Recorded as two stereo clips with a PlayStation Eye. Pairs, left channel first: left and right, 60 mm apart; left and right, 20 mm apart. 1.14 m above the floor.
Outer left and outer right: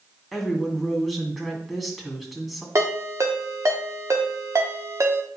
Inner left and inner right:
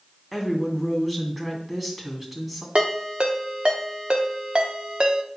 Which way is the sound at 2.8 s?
60° right (ahead or behind).